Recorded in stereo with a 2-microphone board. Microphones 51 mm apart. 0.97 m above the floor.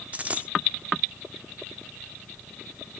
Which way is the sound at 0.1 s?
25° right (ahead or behind).